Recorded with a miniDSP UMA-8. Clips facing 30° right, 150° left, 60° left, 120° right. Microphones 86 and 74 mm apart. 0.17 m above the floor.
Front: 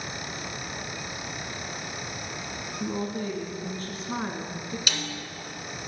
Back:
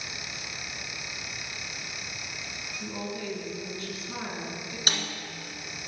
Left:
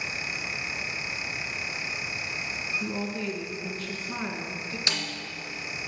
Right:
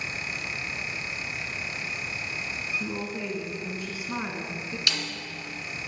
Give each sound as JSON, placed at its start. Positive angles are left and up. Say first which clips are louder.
{"t": 2.8, "sound": "a woman speaking", "louder": "front 5 dB, left 4 dB", "azimuth_deg": -50, "distance_m": 1.5}
{"t": 4.9, "sound": "a snare drum", "louder": "back 5 dB, even", "azimuth_deg": 115, "distance_m": 1.5}